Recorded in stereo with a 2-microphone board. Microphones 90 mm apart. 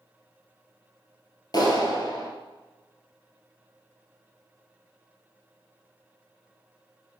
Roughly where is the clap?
Left.